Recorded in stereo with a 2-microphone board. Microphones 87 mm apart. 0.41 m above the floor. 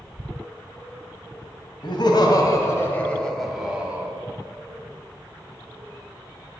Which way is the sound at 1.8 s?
65° left (ahead or behind).